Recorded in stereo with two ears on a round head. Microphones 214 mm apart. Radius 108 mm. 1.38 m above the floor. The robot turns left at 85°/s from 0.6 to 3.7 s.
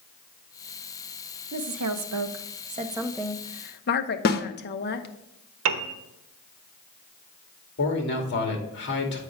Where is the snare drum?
40° left (ahead or behind), 0.8 m.